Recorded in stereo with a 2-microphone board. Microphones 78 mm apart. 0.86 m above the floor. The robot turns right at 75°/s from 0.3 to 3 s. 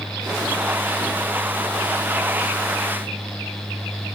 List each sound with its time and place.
Only background noise.